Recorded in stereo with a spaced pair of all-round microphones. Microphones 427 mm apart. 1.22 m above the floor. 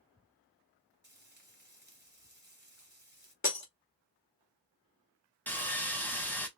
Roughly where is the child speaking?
I don't hear a child speaking.